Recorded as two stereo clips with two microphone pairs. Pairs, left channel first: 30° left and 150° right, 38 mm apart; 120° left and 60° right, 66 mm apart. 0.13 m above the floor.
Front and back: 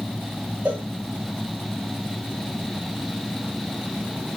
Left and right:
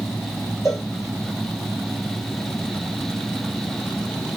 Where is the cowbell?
160° left, 2.5 m.